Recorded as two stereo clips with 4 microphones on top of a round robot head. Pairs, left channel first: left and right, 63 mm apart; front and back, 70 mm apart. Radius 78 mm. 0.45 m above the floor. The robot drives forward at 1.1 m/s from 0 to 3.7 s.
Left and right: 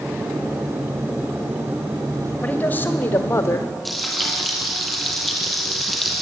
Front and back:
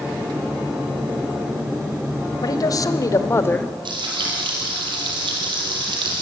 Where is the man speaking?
25° left, 2 m; by 3.8 s 60° left, 1.2 m.